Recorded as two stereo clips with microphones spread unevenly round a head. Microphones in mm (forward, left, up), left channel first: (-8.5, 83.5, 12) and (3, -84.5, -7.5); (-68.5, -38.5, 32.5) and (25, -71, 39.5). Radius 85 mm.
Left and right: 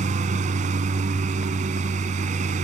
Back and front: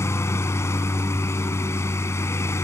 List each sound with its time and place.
0.0 s a lawn mower: 135° right